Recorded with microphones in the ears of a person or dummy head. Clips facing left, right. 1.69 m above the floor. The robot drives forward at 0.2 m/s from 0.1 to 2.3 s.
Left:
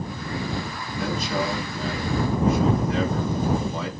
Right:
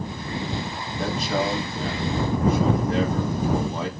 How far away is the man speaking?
About 1.5 m.